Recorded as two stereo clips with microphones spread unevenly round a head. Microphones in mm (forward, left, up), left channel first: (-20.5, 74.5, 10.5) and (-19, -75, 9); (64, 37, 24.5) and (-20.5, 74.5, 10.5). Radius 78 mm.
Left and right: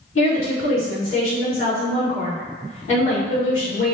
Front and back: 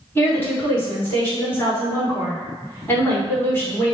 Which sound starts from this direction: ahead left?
A woman speaking, at 0.1 s.